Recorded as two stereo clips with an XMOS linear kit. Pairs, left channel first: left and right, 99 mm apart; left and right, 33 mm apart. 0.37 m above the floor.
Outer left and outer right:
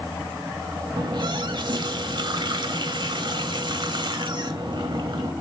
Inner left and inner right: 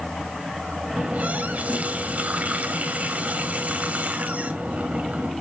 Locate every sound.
1.0 s a running tap: 50° right (ahead or behind), 1.2 m